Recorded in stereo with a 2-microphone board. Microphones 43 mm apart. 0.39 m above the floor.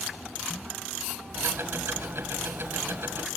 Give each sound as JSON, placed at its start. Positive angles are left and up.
{"t": 1.4, "sound": "ticking", "side_deg": -60, "distance_m": 1.9}